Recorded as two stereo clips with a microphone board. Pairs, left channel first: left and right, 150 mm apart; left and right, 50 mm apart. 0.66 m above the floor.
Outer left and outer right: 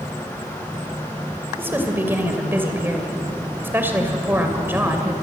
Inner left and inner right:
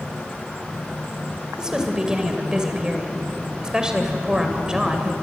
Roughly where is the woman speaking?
Centre.